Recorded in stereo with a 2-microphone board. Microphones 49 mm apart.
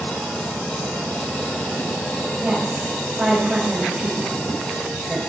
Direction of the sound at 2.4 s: 10° right (ahead or behind).